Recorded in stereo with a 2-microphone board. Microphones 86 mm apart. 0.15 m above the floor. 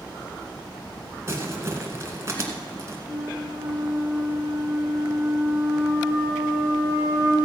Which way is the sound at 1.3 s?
30° right (ahead or behind).